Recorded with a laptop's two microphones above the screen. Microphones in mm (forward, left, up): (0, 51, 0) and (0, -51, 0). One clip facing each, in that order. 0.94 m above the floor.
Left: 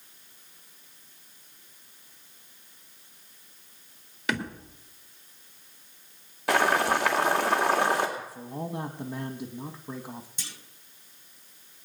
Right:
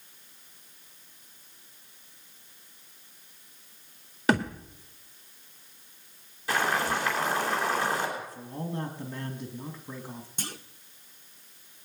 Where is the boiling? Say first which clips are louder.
Left 4 dB; 70° left (ahead or behind), 2.5 m.